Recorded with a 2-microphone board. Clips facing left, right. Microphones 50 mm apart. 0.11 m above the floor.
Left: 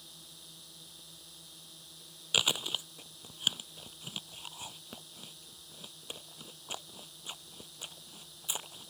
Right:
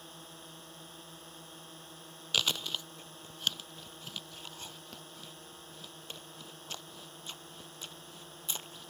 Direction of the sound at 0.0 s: 40° right (ahead or behind).